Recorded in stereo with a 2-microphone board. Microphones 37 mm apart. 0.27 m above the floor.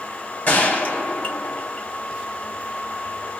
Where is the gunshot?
45° left (ahead or behind), 1.4 m.